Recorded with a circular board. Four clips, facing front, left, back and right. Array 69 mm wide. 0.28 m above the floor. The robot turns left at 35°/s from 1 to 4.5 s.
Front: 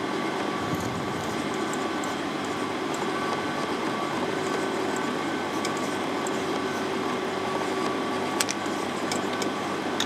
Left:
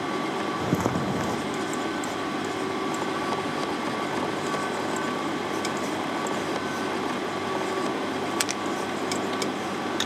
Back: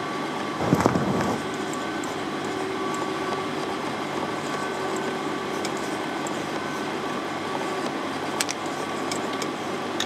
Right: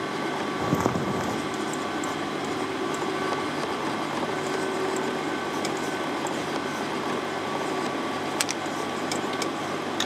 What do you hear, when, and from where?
0.6 s footsteps: 170° right, 0.6 m; by 1.4 s 175° left, 0.6 m